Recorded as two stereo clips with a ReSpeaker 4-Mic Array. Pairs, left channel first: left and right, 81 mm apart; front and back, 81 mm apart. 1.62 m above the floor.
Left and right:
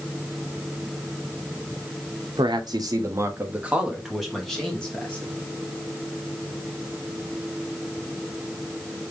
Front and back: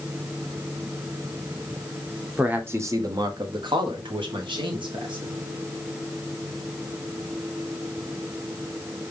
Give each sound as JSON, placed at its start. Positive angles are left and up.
{"t": 2.4, "sound": "a man speaking", "azimuth_deg": -105, "distance_m": 0.8}